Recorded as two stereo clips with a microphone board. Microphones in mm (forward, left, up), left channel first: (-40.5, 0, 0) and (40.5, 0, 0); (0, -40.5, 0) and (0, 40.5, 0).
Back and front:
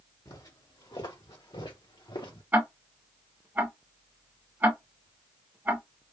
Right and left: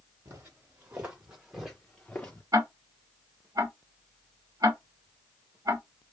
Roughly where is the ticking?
Ahead left.